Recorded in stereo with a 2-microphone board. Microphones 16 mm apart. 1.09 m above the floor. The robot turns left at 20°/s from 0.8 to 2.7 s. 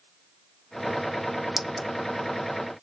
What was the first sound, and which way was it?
A clink, 20° right (ahead or behind).